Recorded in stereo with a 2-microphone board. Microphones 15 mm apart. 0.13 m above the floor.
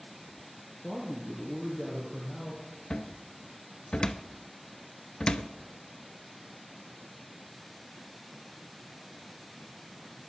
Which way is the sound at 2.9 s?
60° left (ahead or behind).